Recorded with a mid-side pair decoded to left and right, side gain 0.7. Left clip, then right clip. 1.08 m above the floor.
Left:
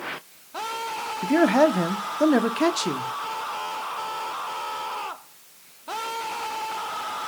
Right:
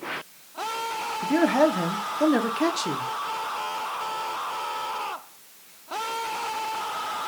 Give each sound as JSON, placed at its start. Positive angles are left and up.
{"t": 1.2, "sound": "a man speaking", "azimuth_deg": 15, "distance_m": 0.6}